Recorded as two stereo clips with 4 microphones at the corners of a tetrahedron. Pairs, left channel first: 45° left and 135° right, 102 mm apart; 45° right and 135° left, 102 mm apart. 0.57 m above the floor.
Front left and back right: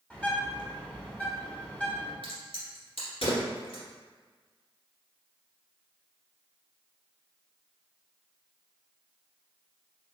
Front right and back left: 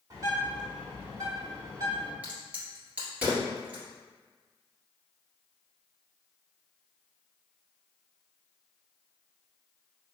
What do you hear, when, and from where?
0.1 s a bird: 115° left, 0.9 m
2.2 s a crack: 60° left, 1.7 m